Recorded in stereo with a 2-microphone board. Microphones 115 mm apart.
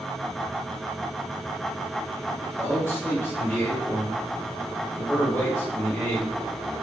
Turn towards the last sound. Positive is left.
turn(degrees=25)  # may be behind; listen again after turning